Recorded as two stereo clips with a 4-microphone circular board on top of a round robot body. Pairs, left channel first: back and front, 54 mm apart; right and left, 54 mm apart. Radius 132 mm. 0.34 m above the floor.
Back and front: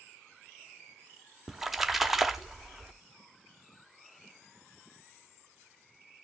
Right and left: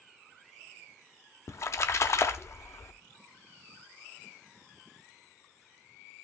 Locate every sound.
1.5 s a splash: 85° right, 0.8 m